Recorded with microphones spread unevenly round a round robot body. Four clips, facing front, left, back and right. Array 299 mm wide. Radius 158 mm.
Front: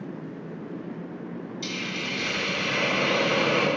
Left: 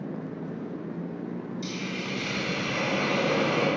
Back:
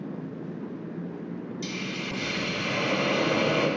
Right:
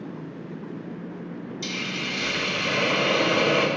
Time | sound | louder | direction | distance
1.6 | a hiss | right 1 dB, front 2 dB | 105° right | 1.8 m